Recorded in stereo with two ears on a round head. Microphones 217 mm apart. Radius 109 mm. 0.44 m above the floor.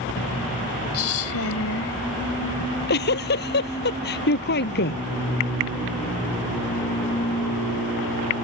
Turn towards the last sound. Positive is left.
turn(degrees=45)  # may be behind; listen again after turning